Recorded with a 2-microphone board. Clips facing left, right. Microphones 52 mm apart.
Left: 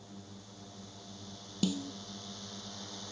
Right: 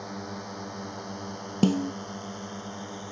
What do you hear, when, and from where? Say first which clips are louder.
0.0 s a drone: right 14 dB; 65° right (ahead or behind); by 3.1 s 30° right (ahead or behind)
1.6 s a snare drum: right 10 dB; 45° right (ahead or behind)